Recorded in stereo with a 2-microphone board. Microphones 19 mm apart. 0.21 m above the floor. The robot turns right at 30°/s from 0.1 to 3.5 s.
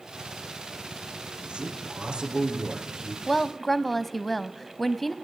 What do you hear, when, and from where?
1.4 s a man speaking: 90° right, 5.5 m; by 3.2 s 40° right, 5.5 m
3.3 s a woman speaking: 10° left (ahead or behind), 1.0 m